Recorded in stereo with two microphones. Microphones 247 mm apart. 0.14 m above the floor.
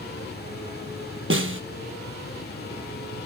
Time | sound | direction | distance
1.3 | a snare drum | 55° right (ahead or behind) | 1.0 m